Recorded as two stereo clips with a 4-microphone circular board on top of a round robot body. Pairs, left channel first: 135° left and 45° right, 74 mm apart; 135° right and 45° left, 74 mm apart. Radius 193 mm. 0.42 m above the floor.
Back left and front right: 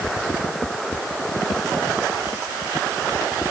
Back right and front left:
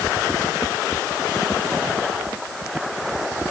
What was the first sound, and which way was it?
Only background noise.